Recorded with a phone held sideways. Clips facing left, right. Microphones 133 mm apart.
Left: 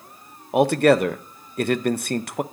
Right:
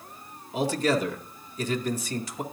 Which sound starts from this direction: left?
A man speaking, at 0.5 s.